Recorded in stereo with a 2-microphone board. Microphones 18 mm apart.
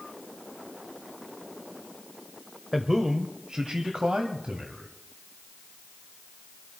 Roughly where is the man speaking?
Centre.